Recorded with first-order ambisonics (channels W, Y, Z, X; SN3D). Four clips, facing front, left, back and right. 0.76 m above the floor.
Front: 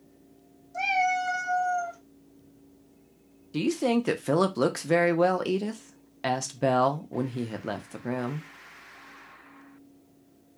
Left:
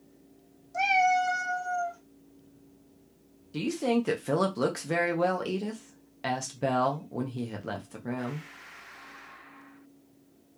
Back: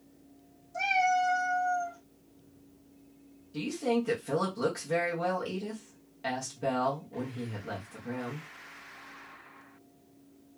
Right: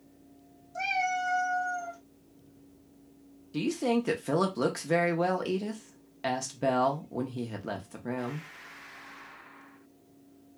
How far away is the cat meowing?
About 1.2 m.